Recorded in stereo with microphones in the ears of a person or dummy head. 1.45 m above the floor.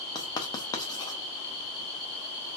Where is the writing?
25° left (ahead or behind), 0.6 m.